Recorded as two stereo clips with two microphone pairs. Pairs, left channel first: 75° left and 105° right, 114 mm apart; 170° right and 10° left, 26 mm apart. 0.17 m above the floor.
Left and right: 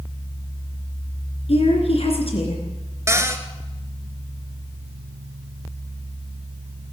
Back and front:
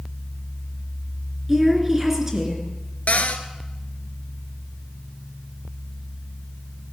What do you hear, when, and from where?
1.5 s a woman speaking: 80° left, 3 m
3.1 s a cupboard door: 165° right, 1.0 m